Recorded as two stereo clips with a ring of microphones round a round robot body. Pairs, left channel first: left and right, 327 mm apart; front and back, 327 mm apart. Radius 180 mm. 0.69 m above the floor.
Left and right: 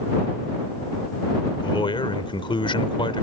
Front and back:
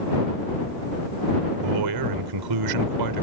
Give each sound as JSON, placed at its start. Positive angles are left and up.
{"t": 1.6, "sound": "a man speaking", "azimuth_deg": 165}